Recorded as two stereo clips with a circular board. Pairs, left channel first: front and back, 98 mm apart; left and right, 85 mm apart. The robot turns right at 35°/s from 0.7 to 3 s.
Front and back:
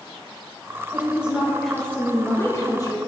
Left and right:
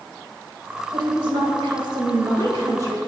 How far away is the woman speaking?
About 1.5 m.